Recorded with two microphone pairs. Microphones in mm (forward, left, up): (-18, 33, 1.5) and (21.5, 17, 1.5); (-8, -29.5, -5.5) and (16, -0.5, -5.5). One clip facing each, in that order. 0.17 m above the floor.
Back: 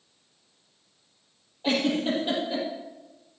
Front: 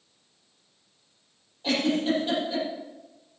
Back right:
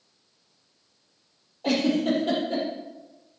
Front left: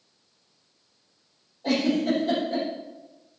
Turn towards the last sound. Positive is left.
turn(degrees=-135)